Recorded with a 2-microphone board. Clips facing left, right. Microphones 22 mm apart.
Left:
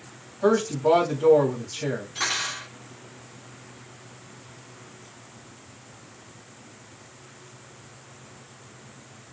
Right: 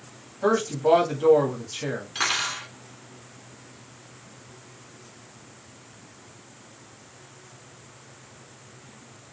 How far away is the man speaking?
About 1.3 m.